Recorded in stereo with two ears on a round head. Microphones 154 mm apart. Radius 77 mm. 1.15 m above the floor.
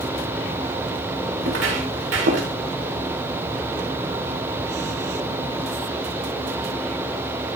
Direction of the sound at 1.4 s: 80° right.